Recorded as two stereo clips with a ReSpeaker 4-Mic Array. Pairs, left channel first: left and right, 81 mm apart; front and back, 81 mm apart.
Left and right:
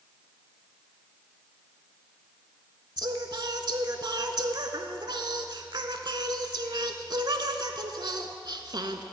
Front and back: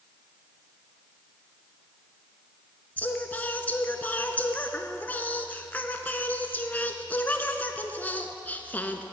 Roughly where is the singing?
Ahead right.